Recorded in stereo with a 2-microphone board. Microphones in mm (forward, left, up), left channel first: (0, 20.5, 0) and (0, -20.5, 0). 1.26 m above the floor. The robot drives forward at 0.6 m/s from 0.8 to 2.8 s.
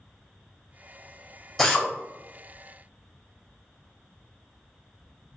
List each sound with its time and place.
1.6 s a drill: centre (ahead or behind), 1.6 m